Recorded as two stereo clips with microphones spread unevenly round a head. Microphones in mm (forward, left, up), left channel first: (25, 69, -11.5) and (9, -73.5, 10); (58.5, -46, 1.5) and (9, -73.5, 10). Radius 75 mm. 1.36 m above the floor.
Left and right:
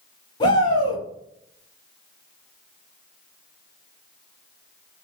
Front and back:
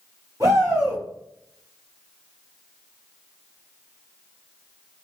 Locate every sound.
0.4 s a shout: 145° left, 1.1 m